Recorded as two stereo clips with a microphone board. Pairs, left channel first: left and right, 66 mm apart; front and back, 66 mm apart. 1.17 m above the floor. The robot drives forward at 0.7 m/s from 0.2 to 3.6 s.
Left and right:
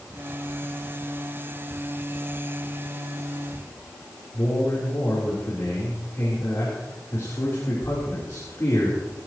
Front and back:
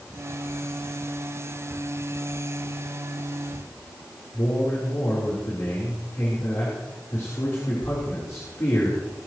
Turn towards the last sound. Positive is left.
turn(degrees=40)